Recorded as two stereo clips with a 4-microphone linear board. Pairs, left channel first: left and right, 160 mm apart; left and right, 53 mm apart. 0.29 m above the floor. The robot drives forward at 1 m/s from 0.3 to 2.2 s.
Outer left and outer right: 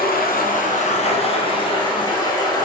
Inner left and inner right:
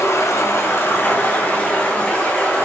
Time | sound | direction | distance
0.0 | running water | 65° left (ahead or behind) | 1.2 m